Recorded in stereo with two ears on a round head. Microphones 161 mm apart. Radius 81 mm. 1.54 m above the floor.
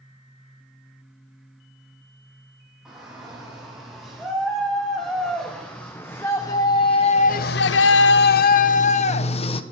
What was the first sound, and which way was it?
A shout, 5° right (ahead or behind).